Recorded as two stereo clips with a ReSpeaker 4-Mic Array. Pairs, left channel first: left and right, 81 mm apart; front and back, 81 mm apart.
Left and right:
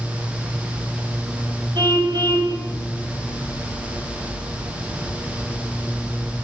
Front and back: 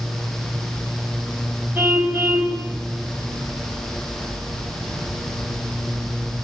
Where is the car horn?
110° right, 4.5 m.